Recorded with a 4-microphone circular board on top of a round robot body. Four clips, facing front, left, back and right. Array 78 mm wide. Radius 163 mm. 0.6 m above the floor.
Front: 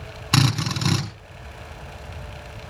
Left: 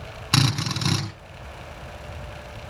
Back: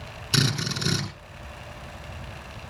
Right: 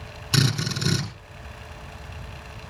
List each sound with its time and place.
0.3 s a drill: 40° left, 5 m